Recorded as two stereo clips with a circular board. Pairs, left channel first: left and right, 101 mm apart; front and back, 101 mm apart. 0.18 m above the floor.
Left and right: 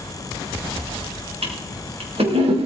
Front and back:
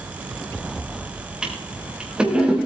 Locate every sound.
1.4 s a toilet flushing: 100° right, 5 m